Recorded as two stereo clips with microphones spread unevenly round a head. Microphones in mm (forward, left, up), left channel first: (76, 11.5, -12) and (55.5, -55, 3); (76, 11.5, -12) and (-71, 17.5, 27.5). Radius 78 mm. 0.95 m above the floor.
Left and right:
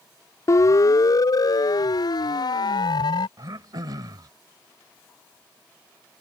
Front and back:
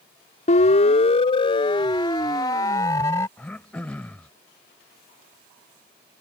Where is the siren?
35° left; by 3.3 s 70° left.